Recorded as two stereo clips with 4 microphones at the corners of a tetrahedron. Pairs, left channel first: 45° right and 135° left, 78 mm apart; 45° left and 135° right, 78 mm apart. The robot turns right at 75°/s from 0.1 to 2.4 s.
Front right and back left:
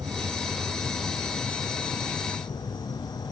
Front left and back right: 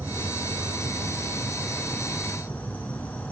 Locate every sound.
0.0 s an insect: 160° left, 3 m; by 3.3 s 25° right, 3 m